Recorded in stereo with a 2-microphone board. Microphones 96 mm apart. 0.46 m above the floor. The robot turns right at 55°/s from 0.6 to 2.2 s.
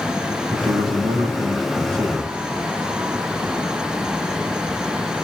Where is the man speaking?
110° right, 4 m; by 2.3 s 20° right, 4 m.